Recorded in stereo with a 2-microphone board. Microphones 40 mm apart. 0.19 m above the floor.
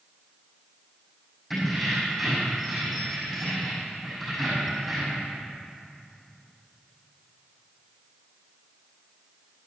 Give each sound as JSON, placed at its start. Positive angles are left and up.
{"t": 1.5, "sound": "keys jangling", "side_deg": 0, "distance_m": 5.5}